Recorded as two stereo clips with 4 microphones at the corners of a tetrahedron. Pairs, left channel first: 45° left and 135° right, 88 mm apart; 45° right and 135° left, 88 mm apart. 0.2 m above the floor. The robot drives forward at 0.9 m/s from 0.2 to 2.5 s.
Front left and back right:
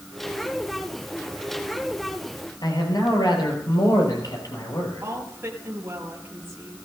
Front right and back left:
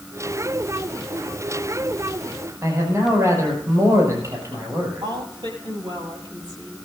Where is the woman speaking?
160° left, 6 m.